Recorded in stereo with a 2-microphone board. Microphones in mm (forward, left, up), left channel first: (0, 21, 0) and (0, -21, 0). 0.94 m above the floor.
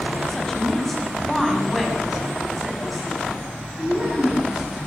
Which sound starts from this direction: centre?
A woman speaking, at 0.3 s.